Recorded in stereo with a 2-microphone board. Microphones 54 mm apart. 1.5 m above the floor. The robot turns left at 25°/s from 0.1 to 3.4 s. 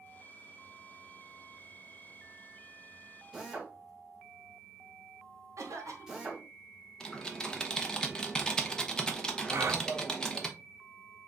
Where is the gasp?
55° right (ahead or behind), 0.8 m.